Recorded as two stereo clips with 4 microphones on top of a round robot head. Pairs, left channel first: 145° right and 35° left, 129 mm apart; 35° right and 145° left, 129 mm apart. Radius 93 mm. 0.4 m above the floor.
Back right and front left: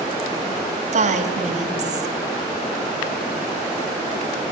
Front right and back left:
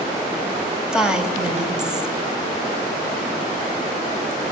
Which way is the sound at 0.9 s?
60° left.